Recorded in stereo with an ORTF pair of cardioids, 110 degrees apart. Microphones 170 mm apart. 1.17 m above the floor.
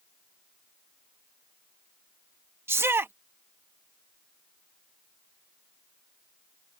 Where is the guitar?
No guitar in this recording.